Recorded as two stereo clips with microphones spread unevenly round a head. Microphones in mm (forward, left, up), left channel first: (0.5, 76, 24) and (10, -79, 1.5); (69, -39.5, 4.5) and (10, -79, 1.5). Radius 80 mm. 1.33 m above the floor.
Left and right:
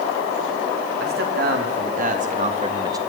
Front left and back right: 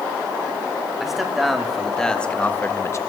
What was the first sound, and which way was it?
A man speaking, 60° right.